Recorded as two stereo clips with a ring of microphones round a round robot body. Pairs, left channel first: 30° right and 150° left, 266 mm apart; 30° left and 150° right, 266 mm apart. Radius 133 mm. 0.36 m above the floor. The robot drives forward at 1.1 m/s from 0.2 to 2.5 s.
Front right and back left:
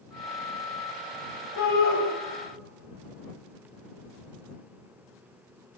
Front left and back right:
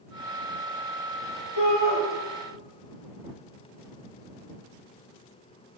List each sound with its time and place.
1.6 s a shout: 5° left, 2 m; by 2.0 s 10° left, 1.8 m